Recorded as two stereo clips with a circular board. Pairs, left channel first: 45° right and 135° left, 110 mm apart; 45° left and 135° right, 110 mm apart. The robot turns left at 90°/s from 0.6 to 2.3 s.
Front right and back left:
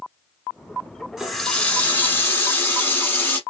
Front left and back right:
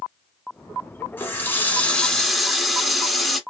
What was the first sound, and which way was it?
A running tap, 55° left.